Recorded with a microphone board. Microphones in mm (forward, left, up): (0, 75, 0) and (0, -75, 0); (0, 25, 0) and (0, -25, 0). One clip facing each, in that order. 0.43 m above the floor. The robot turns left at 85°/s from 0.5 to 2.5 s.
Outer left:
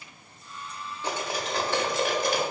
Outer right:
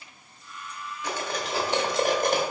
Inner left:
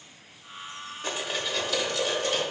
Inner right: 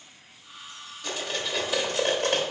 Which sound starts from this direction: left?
Cutlery clinking, at 1.0 s.